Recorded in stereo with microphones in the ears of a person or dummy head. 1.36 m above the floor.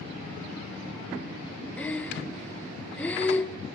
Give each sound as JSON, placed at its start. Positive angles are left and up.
{"t": 1.8, "sound": "breathing", "side_deg": 10, "distance_m": 0.5}